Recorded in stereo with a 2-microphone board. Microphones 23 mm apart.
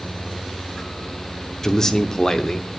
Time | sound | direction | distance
1.6 | a man speaking | 20° left (ahead or behind) | 0.8 m